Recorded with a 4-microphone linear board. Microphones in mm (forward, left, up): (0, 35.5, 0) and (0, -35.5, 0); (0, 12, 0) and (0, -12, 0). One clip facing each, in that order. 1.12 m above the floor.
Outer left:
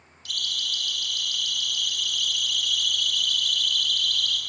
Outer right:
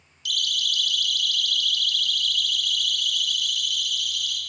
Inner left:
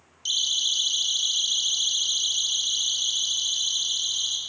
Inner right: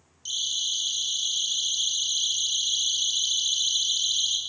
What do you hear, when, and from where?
0.2 s a siren: 35° left (ahead or behind), 5.5 m; by 4.4 s 15° right (ahead or behind), 5.5 m